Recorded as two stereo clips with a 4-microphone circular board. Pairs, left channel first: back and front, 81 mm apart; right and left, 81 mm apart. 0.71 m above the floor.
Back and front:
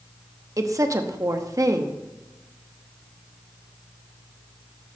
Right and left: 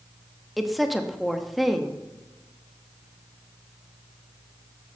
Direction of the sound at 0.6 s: Straight ahead.